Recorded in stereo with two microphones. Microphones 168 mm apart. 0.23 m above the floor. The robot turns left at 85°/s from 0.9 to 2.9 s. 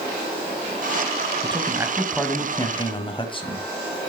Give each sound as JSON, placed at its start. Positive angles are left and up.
{"t": 1.4, "sound": "a man speaking", "azimuth_deg": -120, "distance_m": 1.7}